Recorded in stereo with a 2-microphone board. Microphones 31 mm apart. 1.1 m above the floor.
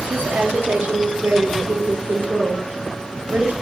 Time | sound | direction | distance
0.1 | a woman speaking | 85° right | 1.9 m